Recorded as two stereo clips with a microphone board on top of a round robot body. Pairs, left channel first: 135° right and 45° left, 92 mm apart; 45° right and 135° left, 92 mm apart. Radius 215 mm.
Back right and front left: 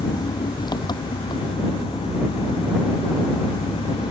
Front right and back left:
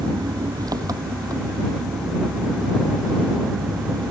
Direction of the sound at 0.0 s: 175° right.